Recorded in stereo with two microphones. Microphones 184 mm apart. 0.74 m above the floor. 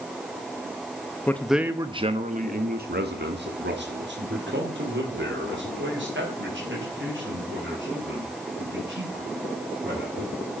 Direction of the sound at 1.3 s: 10° left (ahead or behind).